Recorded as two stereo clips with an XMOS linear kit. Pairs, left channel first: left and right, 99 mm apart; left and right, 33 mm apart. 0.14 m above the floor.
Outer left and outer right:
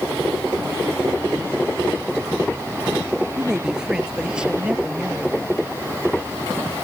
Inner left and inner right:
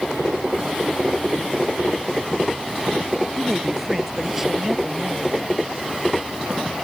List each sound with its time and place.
3.4 s a woman speaking: 5° right (ahead or behind); by 5.6 s 10° right (ahead or behind)